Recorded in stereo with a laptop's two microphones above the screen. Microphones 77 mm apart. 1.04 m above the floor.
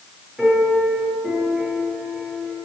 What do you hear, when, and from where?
0.4 s a piano: 10° right (ahead or behind), 7 m